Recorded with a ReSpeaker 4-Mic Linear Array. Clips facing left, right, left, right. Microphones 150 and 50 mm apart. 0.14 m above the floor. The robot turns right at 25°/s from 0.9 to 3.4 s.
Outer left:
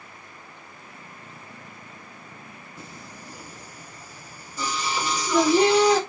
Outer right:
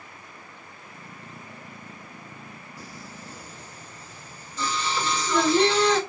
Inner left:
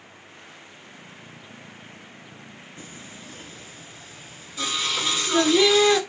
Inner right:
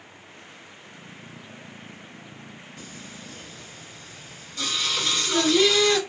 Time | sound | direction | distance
2.8 | singing | 25° left (ahead or behind) | 0.7 m